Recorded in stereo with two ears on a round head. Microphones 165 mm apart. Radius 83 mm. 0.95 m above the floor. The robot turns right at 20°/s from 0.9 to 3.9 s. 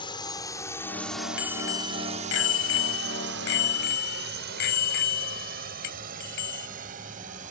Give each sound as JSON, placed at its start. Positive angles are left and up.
{"t": 0.0, "sound": "a drone", "side_deg": 25}
{"t": 1.4, "sound": "a bicycle bell", "azimuth_deg": 65}